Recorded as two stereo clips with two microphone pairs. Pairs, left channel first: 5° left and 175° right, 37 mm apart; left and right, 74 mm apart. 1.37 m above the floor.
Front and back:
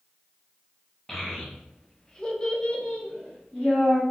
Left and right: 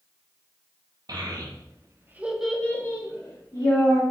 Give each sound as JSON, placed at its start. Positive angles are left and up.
{"t": 1.1, "sound": "a child speaking", "azimuth_deg": -80, "distance_m": 1.0}